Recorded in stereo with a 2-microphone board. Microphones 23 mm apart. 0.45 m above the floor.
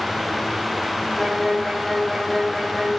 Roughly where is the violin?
Centre.